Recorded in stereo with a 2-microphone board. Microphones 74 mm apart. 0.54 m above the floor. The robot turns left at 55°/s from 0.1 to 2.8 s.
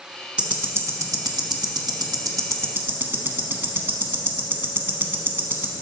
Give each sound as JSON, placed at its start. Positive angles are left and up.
{"t": 0.4, "sound": "ticking", "side_deg": -15, "distance_m": 0.9}